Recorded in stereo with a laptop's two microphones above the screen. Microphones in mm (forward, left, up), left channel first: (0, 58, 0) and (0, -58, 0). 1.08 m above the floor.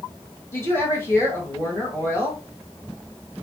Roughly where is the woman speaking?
Left.